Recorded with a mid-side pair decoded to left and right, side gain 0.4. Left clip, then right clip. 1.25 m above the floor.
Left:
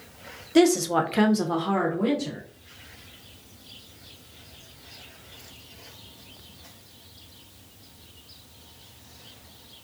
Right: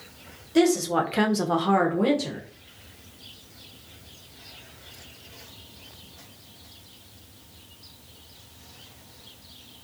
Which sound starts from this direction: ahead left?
A woman speaking, at 0.6 s.